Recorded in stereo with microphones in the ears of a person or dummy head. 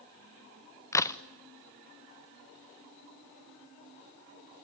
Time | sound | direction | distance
0.9 | a crack | 5° left (ahead or behind) | 0.6 m